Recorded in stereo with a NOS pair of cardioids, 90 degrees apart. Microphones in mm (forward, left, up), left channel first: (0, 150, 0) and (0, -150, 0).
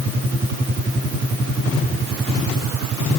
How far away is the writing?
I don't hear writing.